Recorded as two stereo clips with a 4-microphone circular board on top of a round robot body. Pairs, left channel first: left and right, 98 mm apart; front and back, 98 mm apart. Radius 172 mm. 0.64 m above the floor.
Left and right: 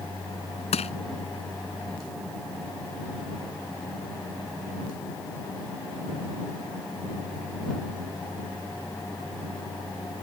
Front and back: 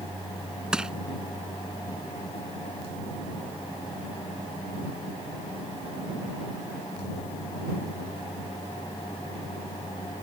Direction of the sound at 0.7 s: 95° left.